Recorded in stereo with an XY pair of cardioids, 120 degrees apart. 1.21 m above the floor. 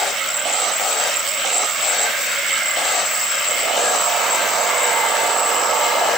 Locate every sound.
Only background noise.